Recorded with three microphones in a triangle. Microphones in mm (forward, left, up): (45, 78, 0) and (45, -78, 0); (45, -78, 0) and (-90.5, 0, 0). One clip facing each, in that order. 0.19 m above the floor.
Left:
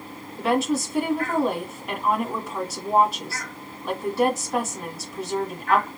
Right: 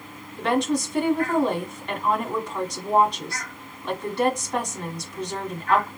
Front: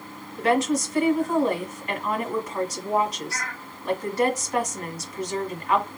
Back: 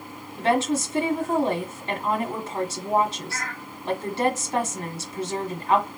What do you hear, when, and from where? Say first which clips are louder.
0.4 s a woman speaking: even, front 1 dB; 170° left, 1.4 m